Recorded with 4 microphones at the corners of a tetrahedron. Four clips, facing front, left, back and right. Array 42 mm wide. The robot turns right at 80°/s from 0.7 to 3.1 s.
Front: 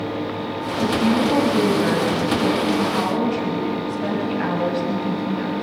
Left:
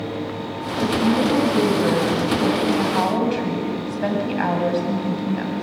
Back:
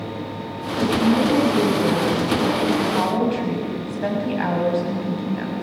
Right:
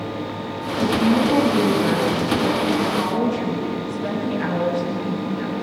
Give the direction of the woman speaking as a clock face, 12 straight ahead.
2 o'clock.